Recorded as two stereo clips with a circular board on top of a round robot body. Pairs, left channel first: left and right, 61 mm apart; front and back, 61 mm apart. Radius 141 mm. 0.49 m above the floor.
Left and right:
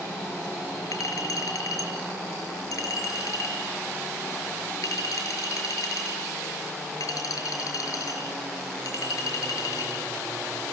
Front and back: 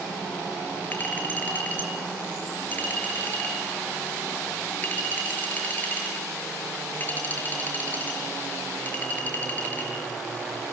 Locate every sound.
0.9 s a clink: 65° left, 6 m